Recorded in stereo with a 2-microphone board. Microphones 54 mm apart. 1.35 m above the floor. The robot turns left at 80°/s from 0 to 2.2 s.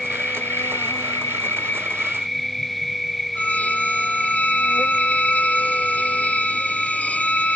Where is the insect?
175° left; by 7.6 s 5° right.